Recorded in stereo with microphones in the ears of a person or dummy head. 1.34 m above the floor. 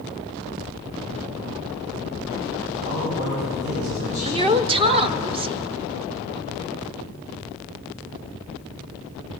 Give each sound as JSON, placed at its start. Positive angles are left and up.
{"t": 2.9, "sound": "a man speaking", "side_deg": -40, "distance_m": 6.0}
{"t": 4.2, "sound": "a woman speaking", "side_deg": -30, "distance_m": 0.8}